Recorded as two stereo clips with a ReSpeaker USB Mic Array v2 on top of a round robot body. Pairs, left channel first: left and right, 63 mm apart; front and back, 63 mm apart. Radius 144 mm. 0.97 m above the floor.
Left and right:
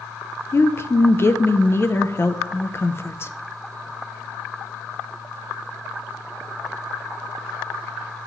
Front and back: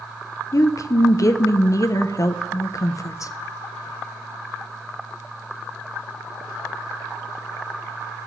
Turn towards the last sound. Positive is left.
turn(degrees=40)